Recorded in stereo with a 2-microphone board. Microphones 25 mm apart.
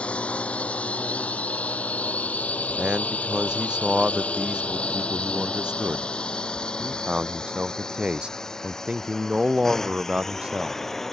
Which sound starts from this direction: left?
A drone, at 0.0 s.